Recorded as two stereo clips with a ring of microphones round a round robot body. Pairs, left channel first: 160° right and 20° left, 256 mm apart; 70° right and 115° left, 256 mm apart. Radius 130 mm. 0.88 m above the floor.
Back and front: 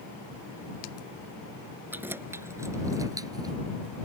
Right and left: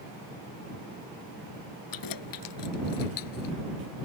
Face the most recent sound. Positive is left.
turn(degrees=-55)